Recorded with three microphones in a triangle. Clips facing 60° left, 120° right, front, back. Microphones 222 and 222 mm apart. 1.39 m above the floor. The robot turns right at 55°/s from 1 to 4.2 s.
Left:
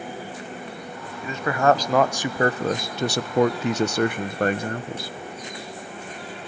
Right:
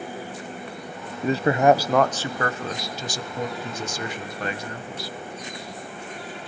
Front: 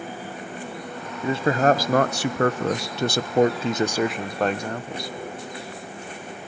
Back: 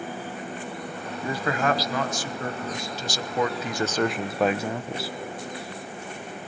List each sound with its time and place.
1.2 s a man speaking: 70° right, 1.0 m; by 5.1 s 95° left, 1.0 m